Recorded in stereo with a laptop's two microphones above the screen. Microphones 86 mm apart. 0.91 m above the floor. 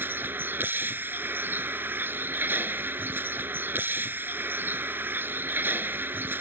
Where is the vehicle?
25° right (ahead or behind).